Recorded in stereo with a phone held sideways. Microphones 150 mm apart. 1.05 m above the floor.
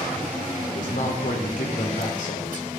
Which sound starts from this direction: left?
A man speaking, at 0.6 s.